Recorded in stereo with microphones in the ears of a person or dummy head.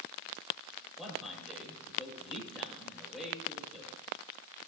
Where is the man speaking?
Centre (ahead or behind), 5.5 m.